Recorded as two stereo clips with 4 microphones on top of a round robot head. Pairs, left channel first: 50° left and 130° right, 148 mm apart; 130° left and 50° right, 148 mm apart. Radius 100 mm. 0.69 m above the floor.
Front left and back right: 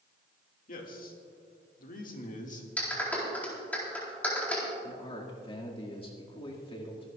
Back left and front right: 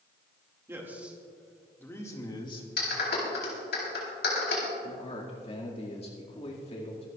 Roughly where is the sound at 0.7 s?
Ahead left.